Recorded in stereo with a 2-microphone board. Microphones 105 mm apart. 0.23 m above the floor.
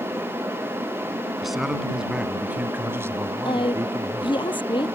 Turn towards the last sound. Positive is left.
turn(degrees=50)  # may be behind; listen again after turning